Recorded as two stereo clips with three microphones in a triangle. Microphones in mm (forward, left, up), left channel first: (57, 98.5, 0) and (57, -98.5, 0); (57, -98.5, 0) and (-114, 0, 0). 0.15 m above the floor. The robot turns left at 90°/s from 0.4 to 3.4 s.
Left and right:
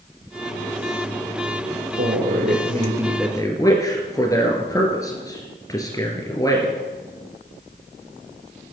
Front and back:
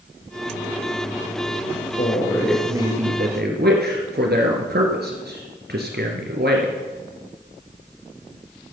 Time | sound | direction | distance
2.0 | a man speaking | 75° right | 2.0 m